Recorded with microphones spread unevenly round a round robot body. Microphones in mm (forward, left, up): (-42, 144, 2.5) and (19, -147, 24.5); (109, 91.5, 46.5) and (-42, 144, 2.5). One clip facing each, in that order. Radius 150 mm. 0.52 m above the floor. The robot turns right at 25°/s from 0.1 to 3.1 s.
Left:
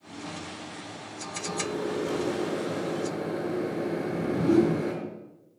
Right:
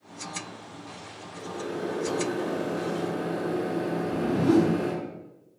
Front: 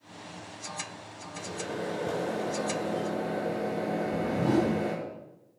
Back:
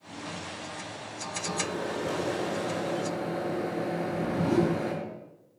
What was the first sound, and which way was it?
A microwave, 175° left.